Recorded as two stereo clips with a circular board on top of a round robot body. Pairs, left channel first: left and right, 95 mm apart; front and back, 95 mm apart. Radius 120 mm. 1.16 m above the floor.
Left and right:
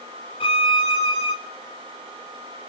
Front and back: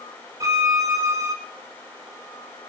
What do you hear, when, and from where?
0.4 s a violin: 120° left, 3.5 m